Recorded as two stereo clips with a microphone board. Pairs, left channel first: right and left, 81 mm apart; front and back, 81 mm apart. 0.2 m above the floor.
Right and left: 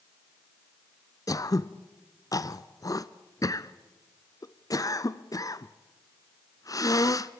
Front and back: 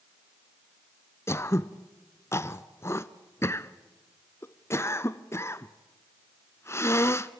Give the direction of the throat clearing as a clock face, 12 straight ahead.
2 o'clock.